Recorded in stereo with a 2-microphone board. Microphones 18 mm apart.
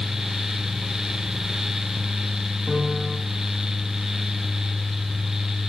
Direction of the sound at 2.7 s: 65° left (ahead or behind).